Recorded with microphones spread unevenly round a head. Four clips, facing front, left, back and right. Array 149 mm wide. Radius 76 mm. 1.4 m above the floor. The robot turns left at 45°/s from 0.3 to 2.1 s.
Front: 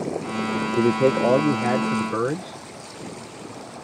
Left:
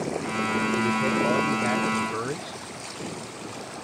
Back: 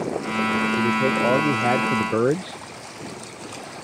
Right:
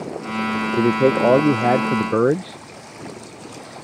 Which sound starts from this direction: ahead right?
A man speaking, at 0.8 s.